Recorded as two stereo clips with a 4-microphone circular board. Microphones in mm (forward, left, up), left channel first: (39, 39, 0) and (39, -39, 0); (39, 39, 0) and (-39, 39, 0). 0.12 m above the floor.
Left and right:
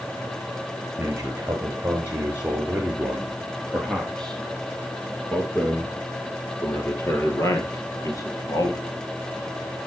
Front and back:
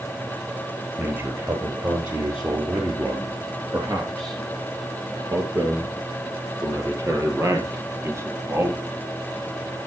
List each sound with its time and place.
1.0 s a man speaking: 140° right, 3 m; by 8.8 s 130° left, 4 m